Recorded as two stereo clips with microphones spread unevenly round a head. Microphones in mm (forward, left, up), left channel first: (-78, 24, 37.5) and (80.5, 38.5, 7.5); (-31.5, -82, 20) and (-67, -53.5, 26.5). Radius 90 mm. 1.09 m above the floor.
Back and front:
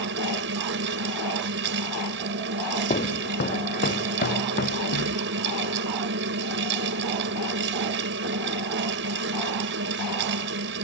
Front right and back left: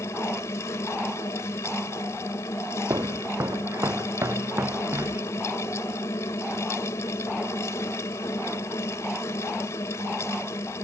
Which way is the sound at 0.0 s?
5° left.